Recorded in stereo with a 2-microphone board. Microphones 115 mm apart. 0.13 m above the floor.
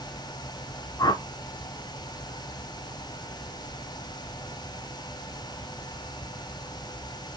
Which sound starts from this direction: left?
A whoosh, at 1.0 s.